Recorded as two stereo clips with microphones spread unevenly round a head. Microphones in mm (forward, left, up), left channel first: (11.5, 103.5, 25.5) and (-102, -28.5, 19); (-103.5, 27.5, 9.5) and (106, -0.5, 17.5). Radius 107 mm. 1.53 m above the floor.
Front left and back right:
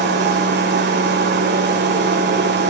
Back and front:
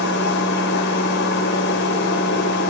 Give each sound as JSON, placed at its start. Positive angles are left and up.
{"t": 0.0, "sound": "a machine running", "azimuth_deg": -145, "distance_m": 5.5}